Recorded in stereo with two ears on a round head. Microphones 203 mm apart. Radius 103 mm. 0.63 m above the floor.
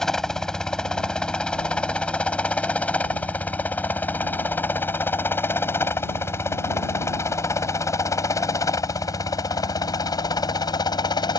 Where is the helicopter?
Centre (ahead or behind); by 11.4 s 20° left (ahead or behind).